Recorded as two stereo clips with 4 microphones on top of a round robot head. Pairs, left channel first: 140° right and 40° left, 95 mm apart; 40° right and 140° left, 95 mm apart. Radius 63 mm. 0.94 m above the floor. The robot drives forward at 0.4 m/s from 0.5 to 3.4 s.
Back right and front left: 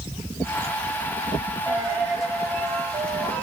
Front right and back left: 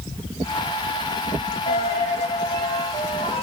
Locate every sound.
1.7 s a dropped coin: 45° right, 1.9 m; by 3.4 s 65° right, 1.5 m